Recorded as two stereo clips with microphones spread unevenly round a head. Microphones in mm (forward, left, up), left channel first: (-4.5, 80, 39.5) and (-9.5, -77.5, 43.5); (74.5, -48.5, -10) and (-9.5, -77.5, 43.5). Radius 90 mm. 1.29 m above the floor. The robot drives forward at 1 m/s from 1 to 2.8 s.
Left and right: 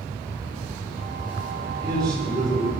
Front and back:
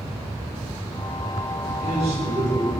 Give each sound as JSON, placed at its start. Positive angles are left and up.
{"t": 1.6, "sound": "a man speaking", "azimuth_deg": -155, "distance_m": 5.0}